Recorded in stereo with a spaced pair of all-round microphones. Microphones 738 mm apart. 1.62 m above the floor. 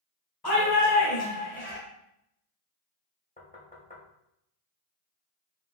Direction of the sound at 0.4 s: 30° left (ahead or behind).